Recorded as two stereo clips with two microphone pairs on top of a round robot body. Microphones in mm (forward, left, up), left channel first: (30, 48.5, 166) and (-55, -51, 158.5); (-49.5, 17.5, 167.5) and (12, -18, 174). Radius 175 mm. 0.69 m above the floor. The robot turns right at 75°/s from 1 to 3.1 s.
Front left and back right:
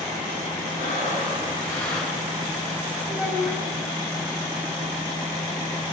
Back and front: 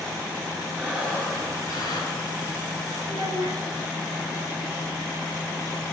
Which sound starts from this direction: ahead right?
A child speaking, at 3.1 s.